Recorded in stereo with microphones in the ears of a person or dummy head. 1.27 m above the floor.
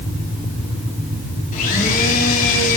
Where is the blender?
40° left (ahead or behind), 3.5 m.